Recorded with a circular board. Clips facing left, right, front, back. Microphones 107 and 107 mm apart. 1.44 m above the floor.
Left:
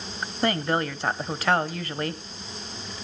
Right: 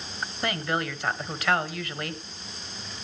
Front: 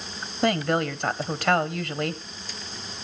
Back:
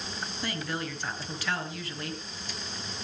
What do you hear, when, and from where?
0.4 s a woman speaking: 35° left, 1.1 m